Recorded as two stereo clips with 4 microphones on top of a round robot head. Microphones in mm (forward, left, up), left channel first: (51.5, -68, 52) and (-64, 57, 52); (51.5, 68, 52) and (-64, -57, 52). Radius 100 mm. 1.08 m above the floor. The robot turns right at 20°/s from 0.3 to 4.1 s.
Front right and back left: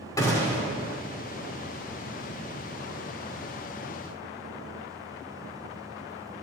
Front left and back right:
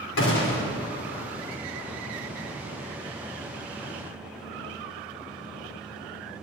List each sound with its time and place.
0.2 s a gunshot: 25° left, 2.5 m; by 0.6 s 35° left, 2.5 m